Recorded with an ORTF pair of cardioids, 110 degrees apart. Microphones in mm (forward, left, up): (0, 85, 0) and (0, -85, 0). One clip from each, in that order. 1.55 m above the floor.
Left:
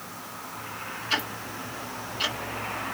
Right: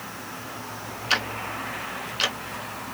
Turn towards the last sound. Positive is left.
turn(degrees=-70)